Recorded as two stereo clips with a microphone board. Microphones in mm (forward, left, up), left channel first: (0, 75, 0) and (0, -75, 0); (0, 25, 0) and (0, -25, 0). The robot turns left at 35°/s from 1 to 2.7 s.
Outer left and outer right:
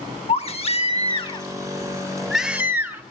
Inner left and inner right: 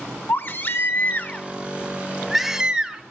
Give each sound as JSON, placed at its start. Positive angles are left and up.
{"t": 0.3, "sound": "a baby crying", "azimuth_deg": 45, "distance_m": 0.7}